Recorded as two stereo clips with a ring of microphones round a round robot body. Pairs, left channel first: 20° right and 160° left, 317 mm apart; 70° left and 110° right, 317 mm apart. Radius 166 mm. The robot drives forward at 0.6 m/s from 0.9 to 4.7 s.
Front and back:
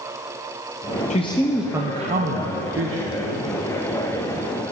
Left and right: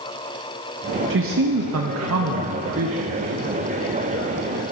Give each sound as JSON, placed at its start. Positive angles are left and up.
{"t": 1.1, "sound": "a man speaking", "azimuth_deg": -80, "distance_m": 0.7}